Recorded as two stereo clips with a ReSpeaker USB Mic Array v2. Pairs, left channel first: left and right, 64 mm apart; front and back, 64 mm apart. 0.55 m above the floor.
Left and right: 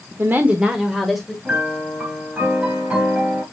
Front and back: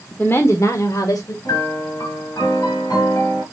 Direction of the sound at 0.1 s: 55° right.